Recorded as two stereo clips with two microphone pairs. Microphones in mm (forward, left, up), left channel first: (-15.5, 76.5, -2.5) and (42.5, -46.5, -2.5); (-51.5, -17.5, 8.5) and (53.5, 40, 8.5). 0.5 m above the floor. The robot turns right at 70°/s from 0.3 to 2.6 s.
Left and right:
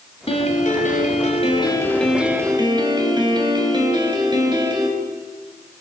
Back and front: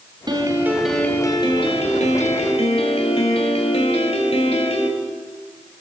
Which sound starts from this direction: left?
A piano, at 0.3 s.